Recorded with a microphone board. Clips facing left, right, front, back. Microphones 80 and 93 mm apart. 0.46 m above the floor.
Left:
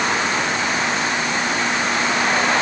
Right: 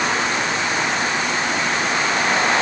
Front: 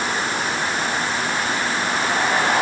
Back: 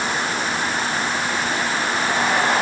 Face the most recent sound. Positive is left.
No sound to turn to.